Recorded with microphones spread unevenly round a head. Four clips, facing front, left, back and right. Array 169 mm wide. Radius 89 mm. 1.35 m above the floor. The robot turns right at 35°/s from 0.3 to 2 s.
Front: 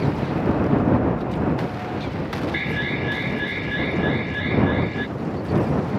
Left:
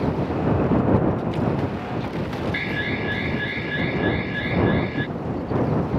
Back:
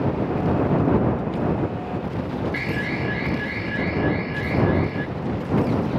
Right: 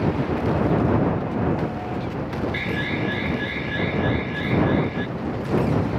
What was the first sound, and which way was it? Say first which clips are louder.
An alarm: right 1 dB, even; 65° left.